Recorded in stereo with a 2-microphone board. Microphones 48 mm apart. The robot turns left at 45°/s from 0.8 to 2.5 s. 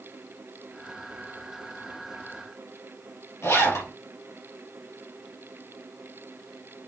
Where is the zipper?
65° left (ahead or behind), 3.5 m.